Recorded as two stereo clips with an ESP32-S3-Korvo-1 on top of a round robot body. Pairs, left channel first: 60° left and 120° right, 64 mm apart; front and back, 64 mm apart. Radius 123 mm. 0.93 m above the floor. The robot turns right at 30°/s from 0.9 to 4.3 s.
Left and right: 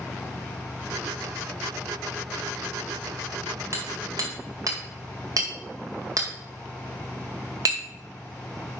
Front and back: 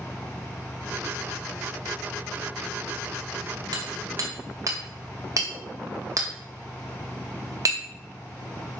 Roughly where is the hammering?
Behind.